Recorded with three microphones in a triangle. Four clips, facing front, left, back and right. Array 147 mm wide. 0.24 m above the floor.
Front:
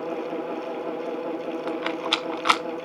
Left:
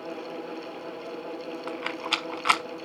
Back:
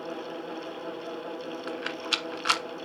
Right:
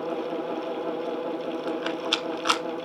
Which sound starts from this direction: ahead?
A rattle, at 1.7 s.